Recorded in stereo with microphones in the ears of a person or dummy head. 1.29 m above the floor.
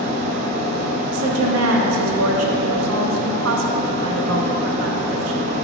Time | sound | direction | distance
0.0 | a machine running | 55° right (ahead or behind) | 1.9 m
1.1 | a woman speaking | 85° right | 1.4 m